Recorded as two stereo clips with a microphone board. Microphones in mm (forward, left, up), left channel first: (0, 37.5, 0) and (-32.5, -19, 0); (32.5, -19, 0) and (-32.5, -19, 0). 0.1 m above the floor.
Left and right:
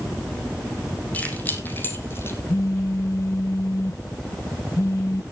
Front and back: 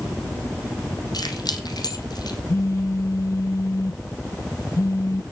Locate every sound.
1.1 s keys jangling: 5° right, 2.5 m; by 2.4 s 10° left, 3 m
2.5 s a phone buzzing: 30° left, 0.5 m